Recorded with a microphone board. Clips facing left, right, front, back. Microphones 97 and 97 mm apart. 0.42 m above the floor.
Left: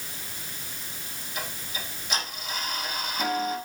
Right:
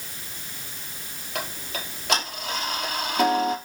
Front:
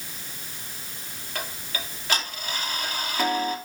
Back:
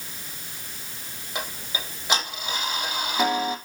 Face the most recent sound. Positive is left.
turn(degrees=-110)